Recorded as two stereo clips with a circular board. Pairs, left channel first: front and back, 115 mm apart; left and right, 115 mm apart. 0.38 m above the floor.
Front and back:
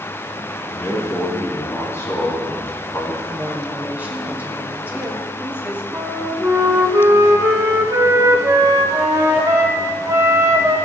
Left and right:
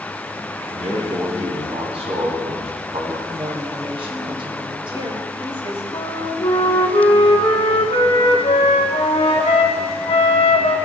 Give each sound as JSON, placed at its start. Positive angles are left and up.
{"t": 0.7, "sound": "a man speaking", "azimuth_deg": -65, "distance_m": 3.0}
{"t": 3.3, "sound": "a woman speaking", "azimuth_deg": -105, "distance_m": 2.0}
{"t": 5.9, "sound": "a flute", "azimuth_deg": 120, "distance_m": 1.2}